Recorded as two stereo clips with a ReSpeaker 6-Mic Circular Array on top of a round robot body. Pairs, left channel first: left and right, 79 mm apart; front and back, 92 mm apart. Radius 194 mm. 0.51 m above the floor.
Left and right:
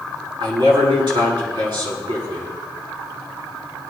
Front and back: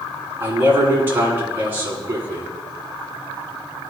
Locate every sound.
0.4 s a man speaking: 115° right, 7.5 m